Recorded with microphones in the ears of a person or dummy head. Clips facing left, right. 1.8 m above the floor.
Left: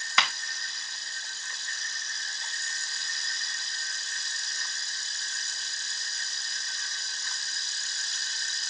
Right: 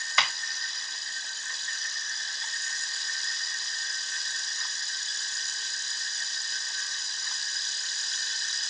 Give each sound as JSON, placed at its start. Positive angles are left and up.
{"t": 0.2, "sound": "a clap", "side_deg": 50, "distance_m": 1.4}